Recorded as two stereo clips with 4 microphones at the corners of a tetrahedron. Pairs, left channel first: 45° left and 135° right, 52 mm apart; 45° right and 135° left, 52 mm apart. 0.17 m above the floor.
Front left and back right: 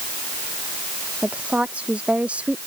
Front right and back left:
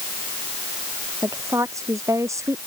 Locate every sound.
1.2 s a woman speaking: 160° left